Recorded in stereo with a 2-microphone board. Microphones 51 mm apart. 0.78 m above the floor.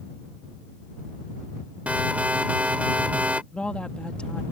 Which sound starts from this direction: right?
An alarm, at 1.9 s.